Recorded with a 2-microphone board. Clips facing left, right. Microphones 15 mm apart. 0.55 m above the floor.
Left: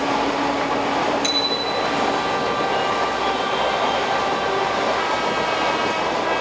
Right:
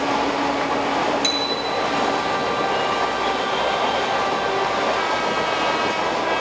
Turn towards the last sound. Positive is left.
turn(degrees=-15)  # may be behind; listen again after turning